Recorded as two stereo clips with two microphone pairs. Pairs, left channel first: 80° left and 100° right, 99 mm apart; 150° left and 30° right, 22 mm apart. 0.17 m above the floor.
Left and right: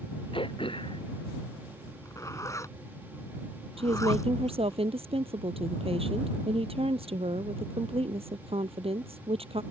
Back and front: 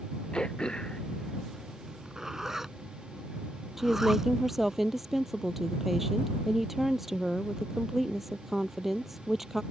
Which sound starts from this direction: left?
Throat clearing, at 0.3 s.